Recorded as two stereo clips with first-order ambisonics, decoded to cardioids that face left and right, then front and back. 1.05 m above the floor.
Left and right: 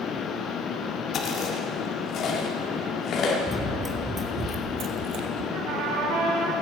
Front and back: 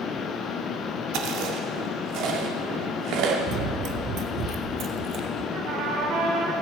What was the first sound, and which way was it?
Chewing, 145° left.